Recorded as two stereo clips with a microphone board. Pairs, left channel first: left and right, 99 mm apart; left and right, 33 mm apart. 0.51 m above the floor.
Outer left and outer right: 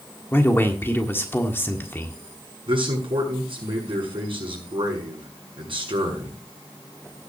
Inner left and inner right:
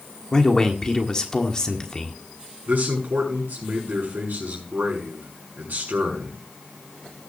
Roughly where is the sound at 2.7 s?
Right.